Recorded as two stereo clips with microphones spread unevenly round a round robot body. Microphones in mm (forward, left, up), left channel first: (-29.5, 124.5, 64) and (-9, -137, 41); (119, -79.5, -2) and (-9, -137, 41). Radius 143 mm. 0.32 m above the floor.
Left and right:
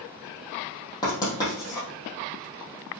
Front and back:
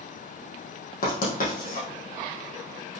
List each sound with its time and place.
1.0 s writing: 20° left, 3.5 m